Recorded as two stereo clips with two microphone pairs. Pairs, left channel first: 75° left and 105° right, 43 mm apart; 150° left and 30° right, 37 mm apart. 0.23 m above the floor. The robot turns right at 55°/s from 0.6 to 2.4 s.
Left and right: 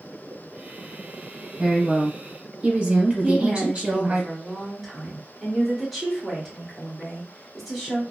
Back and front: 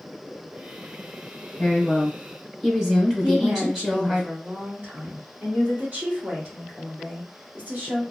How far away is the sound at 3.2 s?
About 1.8 m.